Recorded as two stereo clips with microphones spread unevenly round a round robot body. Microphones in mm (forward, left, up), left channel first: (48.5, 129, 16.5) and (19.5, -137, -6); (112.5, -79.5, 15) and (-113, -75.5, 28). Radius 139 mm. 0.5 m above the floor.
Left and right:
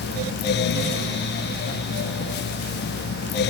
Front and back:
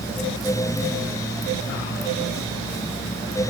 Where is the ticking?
I don't hear ticking.